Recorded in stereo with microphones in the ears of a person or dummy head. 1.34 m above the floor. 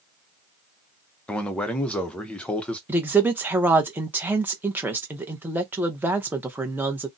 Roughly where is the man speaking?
Centre.